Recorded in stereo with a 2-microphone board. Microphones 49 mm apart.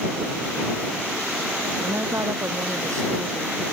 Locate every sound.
1.8 s a woman speaking: 85° right